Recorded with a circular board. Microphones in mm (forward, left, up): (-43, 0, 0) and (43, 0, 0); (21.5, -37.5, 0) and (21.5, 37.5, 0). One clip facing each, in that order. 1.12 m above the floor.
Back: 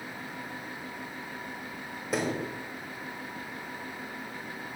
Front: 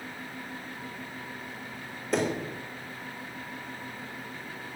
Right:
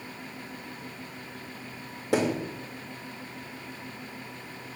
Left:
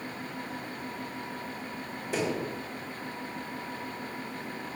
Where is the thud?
95° right, 2.5 m.